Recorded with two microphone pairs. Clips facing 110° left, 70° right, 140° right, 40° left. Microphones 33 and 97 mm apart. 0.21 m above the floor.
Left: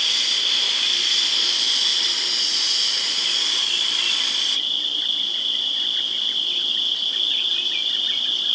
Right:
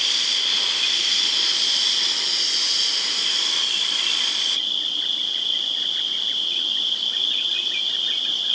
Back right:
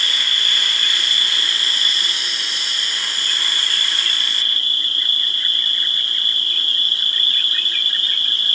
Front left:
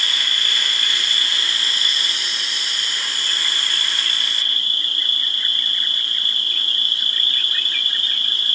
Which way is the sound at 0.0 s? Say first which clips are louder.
Left 1 dB, back right 1 dB; 90° left.